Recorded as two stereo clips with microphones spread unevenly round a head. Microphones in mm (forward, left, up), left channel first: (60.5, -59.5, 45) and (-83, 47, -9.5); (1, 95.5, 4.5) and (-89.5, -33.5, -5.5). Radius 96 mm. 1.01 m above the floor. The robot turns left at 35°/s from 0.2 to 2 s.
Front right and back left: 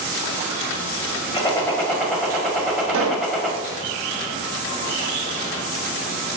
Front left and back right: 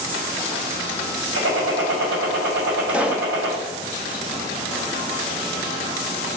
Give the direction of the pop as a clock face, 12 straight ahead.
7 o'clock.